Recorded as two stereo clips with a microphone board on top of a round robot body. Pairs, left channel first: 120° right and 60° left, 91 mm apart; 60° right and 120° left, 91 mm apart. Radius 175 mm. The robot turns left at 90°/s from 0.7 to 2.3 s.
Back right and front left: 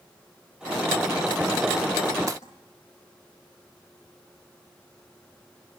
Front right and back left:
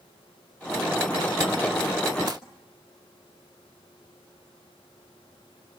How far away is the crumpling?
About 2 m.